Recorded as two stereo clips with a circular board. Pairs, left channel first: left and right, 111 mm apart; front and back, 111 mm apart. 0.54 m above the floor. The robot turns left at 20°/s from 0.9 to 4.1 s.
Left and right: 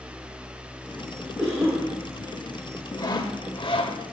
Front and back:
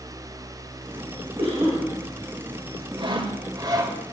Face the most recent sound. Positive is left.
turn(degrees=120)